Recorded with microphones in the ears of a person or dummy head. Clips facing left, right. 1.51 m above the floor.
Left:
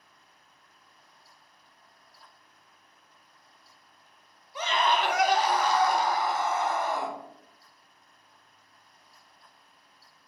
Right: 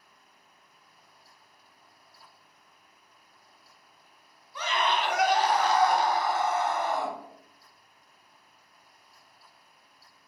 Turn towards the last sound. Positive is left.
turn(degrees=65)  # may be behind; listen again after turning